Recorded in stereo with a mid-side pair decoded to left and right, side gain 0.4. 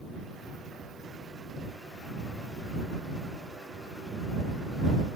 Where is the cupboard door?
I don't hear a cupboard door.